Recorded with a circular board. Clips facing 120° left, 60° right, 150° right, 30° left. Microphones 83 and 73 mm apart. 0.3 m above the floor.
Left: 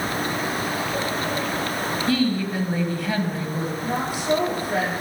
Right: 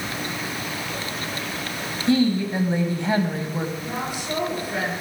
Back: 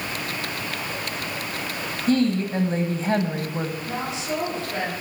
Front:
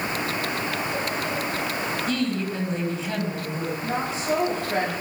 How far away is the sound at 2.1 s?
About 1.7 m.